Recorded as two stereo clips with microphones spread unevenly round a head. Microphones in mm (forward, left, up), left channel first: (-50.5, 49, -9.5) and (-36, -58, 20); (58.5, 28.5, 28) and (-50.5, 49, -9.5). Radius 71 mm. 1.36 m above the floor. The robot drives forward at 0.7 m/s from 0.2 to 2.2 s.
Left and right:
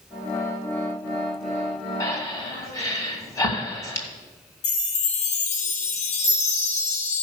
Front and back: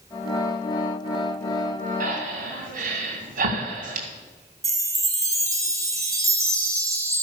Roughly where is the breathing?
Behind.